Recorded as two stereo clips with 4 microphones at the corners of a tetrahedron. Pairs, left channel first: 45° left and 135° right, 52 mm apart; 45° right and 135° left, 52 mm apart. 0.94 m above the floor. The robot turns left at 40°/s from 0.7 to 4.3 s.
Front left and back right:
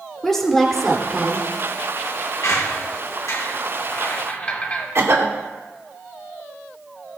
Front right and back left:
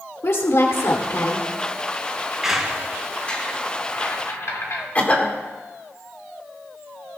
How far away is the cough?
About 2 m.